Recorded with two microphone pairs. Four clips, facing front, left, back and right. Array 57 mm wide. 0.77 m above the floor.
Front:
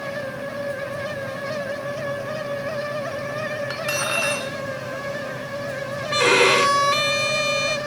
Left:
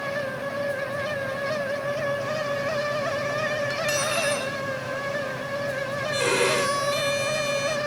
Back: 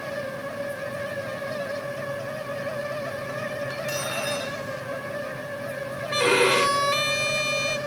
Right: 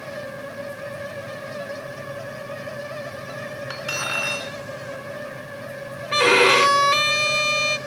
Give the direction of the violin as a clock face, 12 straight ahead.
2 o'clock.